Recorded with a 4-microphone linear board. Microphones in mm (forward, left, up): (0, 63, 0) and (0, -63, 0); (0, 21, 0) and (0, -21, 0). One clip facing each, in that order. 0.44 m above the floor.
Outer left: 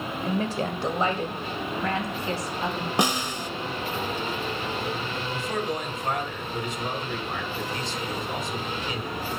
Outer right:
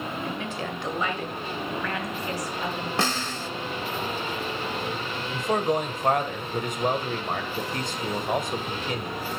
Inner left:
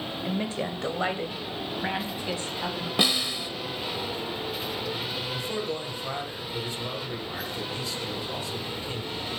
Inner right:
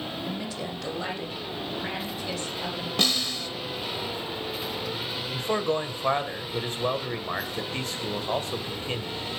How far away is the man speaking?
About 2 m.